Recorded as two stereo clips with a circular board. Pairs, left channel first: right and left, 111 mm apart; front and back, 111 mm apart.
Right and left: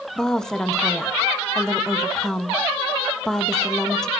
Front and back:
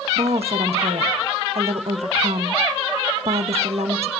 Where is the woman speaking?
175° right, 1.4 m.